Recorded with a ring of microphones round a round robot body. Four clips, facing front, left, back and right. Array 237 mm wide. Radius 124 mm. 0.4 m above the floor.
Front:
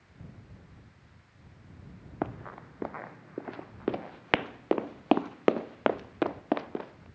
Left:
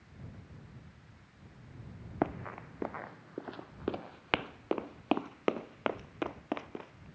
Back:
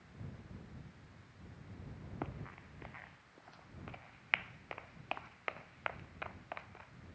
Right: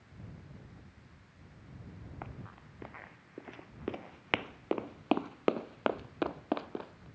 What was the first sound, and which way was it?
Running footsteps, 55° left.